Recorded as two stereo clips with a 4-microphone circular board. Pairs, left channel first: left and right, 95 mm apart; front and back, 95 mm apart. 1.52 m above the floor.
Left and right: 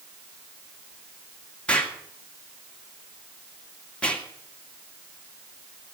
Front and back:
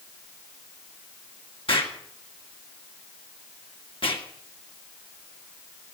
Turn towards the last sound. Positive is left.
turn(degrees=15)